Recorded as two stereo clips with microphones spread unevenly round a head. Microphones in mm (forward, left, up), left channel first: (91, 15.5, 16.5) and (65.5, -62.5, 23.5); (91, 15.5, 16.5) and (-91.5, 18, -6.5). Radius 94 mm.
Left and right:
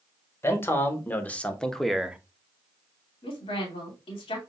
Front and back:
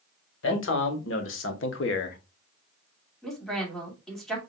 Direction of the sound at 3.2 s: 85° left.